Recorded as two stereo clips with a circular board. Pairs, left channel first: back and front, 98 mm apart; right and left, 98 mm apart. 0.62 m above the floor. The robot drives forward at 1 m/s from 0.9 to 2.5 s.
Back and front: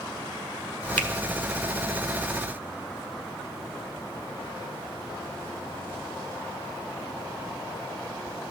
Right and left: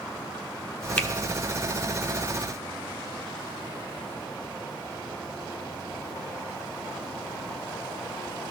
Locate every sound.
1.0 s a finger snap: 135° right, 0.9 m; by 1.1 s 145° right, 1.0 m